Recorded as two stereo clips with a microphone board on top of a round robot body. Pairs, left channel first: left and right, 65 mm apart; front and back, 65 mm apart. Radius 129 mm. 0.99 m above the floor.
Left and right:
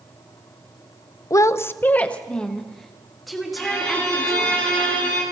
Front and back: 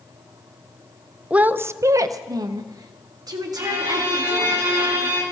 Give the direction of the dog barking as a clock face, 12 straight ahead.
I don't hear a dog barking.